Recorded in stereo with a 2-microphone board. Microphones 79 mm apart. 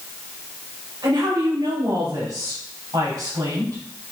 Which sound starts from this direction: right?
A woman speaking, at 1.0 s.